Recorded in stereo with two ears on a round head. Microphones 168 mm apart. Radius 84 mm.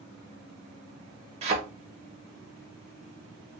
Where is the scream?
No scream in this recording.